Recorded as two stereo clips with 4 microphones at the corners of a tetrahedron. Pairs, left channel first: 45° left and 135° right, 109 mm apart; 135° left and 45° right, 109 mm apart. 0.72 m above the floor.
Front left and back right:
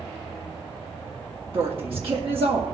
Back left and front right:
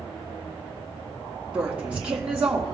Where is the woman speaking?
120° right, 1.7 m.